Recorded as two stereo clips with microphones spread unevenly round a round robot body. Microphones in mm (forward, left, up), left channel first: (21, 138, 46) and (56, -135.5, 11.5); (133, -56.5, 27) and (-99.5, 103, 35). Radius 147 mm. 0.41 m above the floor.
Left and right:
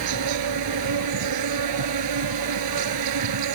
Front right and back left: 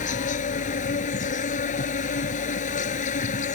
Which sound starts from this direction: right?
An insect, at 0.0 s.